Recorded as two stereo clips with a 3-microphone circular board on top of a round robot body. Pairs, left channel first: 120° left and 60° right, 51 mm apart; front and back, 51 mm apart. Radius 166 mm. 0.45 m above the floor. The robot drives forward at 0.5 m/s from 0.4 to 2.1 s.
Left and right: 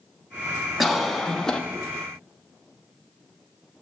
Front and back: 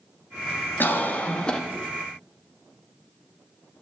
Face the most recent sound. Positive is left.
turn(degrees=105)